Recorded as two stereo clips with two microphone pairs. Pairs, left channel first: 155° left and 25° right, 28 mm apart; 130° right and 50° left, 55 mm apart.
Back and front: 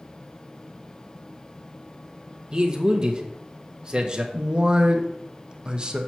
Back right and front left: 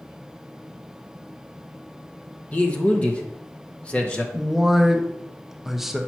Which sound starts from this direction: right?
A man speaking, at 2.5 s.